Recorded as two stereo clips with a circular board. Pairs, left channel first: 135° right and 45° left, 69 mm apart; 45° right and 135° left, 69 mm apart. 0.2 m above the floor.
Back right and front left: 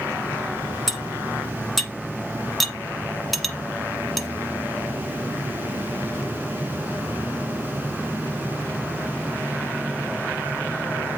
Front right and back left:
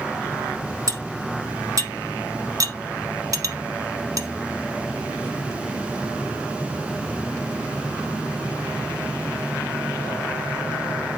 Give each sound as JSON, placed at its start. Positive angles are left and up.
{"t": 0.9, "sound": "cutlery clinking", "azimuth_deg": 135, "distance_m": 1.0}